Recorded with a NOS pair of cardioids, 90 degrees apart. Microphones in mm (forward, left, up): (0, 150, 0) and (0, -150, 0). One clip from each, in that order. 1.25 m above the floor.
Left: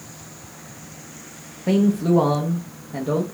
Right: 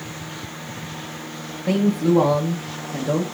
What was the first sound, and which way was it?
A man speaking, 5° left.